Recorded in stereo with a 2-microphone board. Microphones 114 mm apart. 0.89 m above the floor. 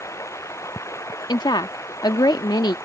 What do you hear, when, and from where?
0.0 s running water: 25° left (ahead or behind)
1.3 s a woman speaking: 40° left (ahead or behind)